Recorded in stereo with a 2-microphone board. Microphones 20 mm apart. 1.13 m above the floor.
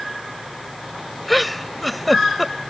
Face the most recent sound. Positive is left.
turn(degrees=0)  # may be behind; listen again after turning